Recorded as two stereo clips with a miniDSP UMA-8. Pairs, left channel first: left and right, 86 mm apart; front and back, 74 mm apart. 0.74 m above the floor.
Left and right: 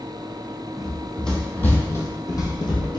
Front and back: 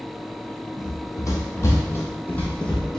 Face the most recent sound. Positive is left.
turn(degrees=80)